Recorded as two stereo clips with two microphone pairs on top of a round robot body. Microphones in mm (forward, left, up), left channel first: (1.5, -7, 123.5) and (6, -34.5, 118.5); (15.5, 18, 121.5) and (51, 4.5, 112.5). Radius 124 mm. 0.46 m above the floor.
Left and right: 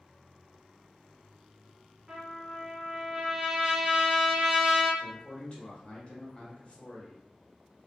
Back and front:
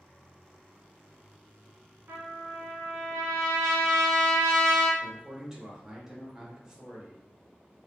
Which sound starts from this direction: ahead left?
A man speaking, at 5.0 s.